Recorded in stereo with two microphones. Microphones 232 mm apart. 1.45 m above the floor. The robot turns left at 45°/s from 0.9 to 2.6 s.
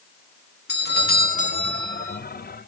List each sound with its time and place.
0.7 s a doorbell: 65° left, 1.3 m; by 2.2 s 10° left, 1.3 m